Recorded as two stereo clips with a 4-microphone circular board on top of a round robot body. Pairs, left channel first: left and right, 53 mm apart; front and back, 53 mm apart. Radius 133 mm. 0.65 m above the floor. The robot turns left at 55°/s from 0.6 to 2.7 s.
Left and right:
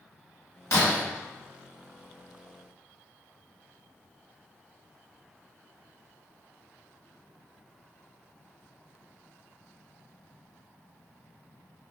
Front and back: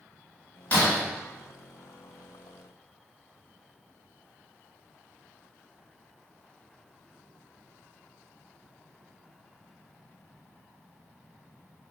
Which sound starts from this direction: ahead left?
Breaking glass, at 0.7 s.